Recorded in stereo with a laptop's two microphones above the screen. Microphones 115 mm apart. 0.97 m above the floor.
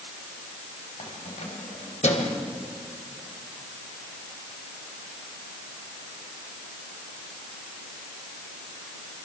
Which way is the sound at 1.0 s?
85° left.